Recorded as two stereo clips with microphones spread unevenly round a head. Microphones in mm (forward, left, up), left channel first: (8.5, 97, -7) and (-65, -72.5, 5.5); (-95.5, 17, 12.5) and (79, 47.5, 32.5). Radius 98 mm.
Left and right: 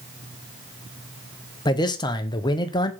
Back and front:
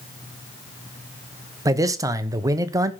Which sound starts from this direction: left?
A man speaking, at 1.6 s.